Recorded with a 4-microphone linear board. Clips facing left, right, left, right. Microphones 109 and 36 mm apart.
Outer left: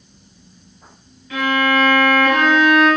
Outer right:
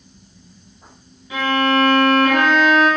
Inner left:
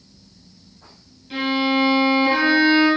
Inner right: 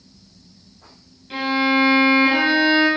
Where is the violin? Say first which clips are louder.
Even, inner right 1 dB; 15° right (ahead or behind), 1.5 m.